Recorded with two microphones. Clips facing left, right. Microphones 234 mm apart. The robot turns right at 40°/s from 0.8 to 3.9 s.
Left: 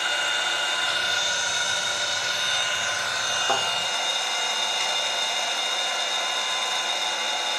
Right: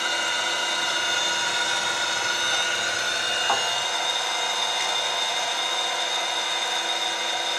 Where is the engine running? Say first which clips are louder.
Right 2 dB; 130° right, 0.8 m; by 7.6 s 5° right, 0.8 m.